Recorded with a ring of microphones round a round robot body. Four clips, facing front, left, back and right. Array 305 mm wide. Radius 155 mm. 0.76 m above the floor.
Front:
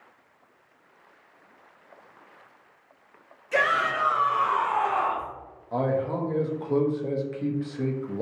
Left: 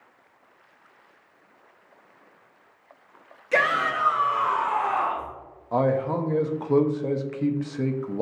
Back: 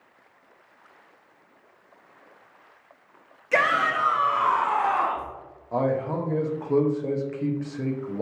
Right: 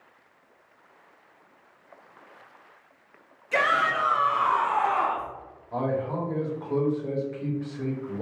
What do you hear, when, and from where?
3.5 s a shout: 140° left, 1.1 m; by 5.3 s 175° right, 1.6 m
5.7 s a man speaking: 95° left, 0.5 m